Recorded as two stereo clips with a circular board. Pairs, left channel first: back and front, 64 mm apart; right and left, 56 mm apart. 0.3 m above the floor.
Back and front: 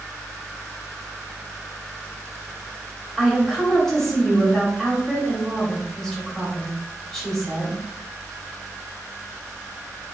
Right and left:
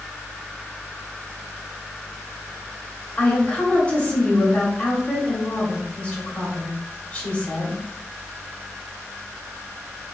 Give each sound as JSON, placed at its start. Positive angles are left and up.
{"t": 3.2, "sound": "a woman speaking", "azimuth_deg": -105, "distance_m": 1.1}